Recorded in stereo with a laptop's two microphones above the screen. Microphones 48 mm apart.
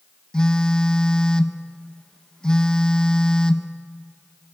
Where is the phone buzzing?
15° left (ahead or behind), 0.7 m.